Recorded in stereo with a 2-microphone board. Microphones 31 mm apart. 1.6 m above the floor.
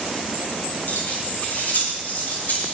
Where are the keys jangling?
60° left (ahead or behind), 6.5 m; by 2.8 s 65° left (ahead or behind), 7.5 m.